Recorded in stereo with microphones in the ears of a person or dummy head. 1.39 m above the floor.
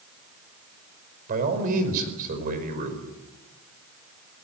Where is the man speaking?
50° right (ahead or behind), 5.5 m.